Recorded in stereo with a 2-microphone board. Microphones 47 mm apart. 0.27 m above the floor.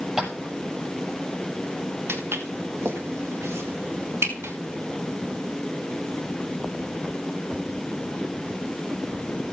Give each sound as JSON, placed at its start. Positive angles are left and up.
{"t": 0.2, "sound": "tapping", "side_deg": -10, "distance_m": 6.0}
{"t": 2.1, "sound": "footsteps", "side_deg": -60, "distance_m": 3.5}